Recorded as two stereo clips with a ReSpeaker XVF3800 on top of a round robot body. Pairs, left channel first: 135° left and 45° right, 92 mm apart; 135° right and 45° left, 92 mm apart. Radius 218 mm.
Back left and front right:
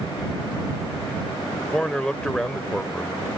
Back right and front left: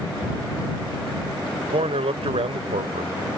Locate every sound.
1.7 s a man speaking: 50° left